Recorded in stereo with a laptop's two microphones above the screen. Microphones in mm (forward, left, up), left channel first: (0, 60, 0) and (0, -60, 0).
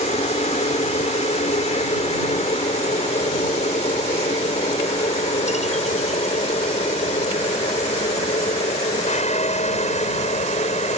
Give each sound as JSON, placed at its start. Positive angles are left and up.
{"t": 0.0, "sound": "a helicopter", "side_deg": 65}